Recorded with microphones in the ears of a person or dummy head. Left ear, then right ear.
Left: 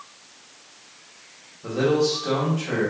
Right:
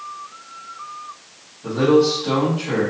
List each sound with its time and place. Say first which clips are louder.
1.6 s a man speaking: right 5 dB; 60° left (ahead or behind), 1.8 m